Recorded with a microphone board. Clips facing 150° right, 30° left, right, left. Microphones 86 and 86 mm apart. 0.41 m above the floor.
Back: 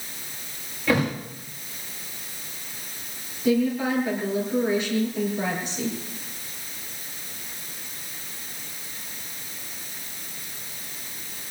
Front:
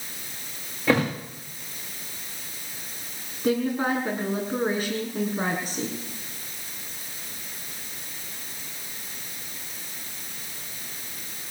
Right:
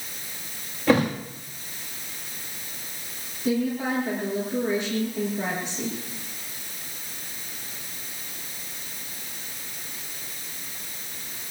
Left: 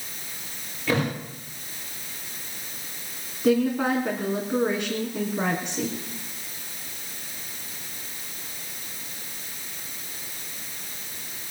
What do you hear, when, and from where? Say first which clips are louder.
0.9 s a thud: front 1 dB, right 5 dB; 35° right, 7.5 m
3.4 s a woman speaking: back 2 dB, left 4 dB; 70° left, 4 m